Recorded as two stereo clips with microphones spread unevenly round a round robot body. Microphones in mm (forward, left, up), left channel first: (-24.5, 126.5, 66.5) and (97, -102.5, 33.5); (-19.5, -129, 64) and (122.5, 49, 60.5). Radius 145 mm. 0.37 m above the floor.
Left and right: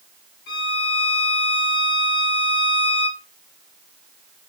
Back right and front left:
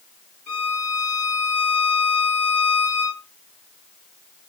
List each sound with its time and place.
0.5 s a violin: 170° left, 0.8 m